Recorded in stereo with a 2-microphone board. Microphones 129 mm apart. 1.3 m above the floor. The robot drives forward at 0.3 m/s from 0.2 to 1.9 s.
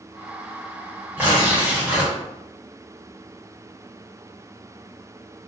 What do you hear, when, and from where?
1.2 s tearing paper: 15° right (ahead or behind), 1.1 m